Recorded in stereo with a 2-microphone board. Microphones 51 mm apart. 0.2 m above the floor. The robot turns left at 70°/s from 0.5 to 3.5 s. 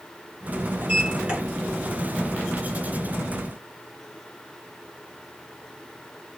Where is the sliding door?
110° right, 1.8 m; by 1.4 s 150° right, 1.8 m.